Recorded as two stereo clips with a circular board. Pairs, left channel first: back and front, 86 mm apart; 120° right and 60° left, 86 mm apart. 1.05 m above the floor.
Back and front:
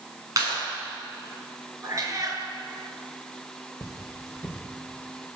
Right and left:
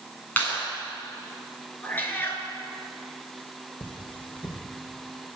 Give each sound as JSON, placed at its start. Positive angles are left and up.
{"t": 0.4, "sound": "a clap", "azimuth_deg": -50, "distance_m": 9.0}
{"t": 1.8, "sound": "a cat meowing", "azimuth_deg": -50, "distance_m": 4.5}
{"t": 3.8, "sound": "cutlery clinking", "azimuth_deg": -130, "distance_m": 2.5}